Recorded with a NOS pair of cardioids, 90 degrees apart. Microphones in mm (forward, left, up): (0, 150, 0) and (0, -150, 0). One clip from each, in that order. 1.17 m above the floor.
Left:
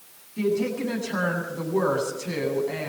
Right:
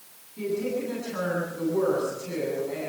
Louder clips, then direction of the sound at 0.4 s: Left 3 dB; 60° left.